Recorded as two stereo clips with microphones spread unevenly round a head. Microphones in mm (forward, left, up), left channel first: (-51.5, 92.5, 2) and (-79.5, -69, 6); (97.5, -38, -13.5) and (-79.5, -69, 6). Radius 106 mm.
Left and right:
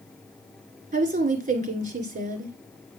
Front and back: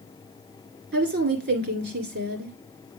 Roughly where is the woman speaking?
Behind right.